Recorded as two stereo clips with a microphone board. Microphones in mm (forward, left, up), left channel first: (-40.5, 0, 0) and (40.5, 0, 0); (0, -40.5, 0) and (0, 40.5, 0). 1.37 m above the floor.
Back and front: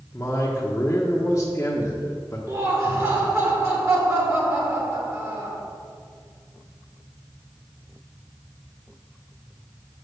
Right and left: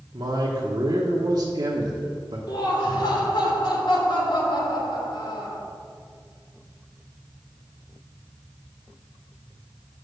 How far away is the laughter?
About 2.5 m.